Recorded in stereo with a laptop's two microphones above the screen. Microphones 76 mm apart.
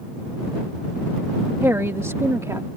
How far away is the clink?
No clink in this recording.